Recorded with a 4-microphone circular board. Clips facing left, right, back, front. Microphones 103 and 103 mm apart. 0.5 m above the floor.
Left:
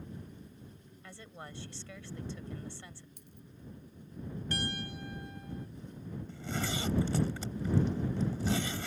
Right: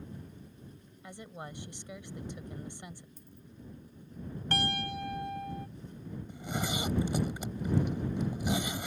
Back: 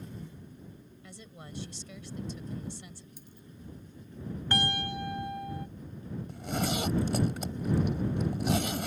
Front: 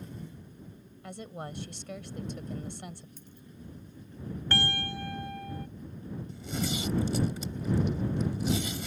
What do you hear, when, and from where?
1.0 s a woman speaking: 20° right
3.2 s a dropped coin: 100° left
4.5 s a piano: 110° right
6.3 s a zipper: 165° right